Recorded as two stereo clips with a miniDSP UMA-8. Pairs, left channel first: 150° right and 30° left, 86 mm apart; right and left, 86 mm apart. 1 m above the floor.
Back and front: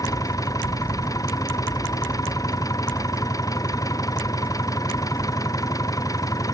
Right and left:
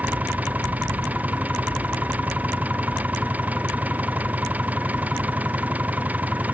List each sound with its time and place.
0.0 s an engine running: 165° left